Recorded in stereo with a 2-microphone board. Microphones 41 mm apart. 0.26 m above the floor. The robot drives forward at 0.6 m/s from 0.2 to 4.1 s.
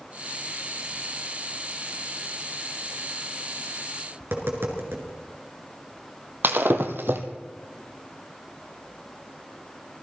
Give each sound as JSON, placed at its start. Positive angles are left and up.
{"t": 4.2, "sound": "tapping", "side_deg": -70, "distance_m": 3.0}
{"t": 6.4, "sound": "breaking glass", "side_deg": -60, "distance_m": 1.5}